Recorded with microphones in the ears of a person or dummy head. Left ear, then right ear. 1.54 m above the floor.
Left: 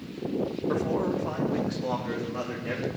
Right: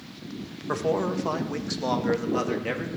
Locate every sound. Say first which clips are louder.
0.7 s a man speaking: right 4 dB; 75° right (ahead or behind), 2 m; by 2.9 s 80° right, 3 m